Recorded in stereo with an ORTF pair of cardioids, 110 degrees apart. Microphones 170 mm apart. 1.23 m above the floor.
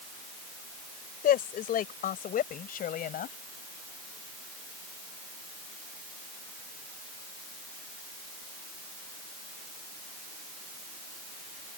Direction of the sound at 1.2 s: 60° left.